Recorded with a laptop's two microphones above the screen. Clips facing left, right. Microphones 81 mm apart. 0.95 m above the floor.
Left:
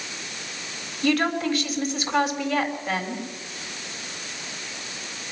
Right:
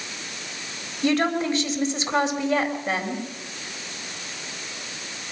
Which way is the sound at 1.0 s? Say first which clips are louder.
Right 1 dB; 25° right (ahead or behind).